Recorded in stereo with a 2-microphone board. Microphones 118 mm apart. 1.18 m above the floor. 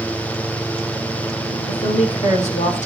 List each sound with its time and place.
1.7 s a woman speaking: 65° left (ahead or behind), 4 m; by 2.9 s 90° left, 3.5 m